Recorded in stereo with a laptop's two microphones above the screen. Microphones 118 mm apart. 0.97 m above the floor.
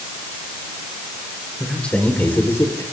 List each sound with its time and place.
1.6 s a man speaking: 5° left (ahead or behind), 5 m; by 2.8 s 30° left (ahead or behind), 4 m